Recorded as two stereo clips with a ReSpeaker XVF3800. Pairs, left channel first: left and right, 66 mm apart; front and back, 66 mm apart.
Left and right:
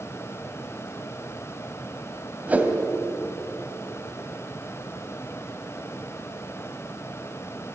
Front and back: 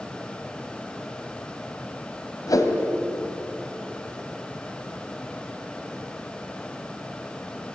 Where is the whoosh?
25° right, 2.5 m.